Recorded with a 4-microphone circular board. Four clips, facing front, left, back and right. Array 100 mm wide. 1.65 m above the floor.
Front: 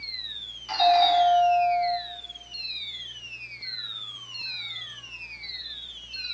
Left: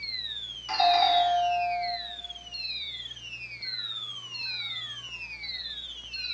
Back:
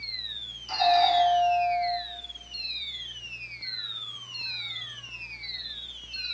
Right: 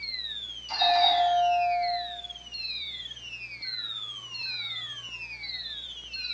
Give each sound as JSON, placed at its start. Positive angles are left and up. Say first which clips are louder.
{"t": 0.7, "sound": "a doorbell", "louder": "left 1 dB, front 2 dB", "azimuth_deg": 65, "distance_m": 6.0}